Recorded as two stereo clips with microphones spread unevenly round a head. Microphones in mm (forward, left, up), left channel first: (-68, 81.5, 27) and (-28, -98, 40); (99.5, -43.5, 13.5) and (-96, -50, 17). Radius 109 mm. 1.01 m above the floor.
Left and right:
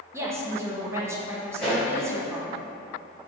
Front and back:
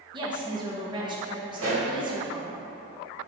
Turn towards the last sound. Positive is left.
turn(degrees=-170)